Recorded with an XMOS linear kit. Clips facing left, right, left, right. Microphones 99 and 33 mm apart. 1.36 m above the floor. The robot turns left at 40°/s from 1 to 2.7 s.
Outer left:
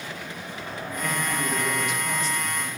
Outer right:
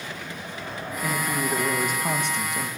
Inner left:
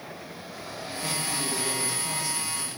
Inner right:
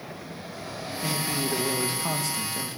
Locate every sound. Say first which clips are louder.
1.0 s a man speaking: outer right 2 dB, inner right 3 dB; 10° right, 1.8 m; by 2.7 s 75° right, 1.8 m